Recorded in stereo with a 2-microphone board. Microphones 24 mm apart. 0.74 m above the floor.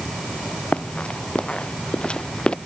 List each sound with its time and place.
0.7 s running footsteps: 60° left (ahead or behind); by 2.6 s 50° left (ahead or behind)